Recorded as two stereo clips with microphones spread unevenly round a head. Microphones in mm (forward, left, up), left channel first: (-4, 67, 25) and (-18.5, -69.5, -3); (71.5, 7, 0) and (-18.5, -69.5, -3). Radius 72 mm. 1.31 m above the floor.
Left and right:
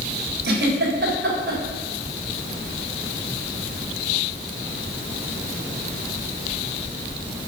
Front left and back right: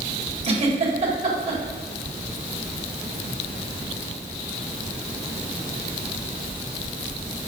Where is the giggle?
105° right, 3.5 m.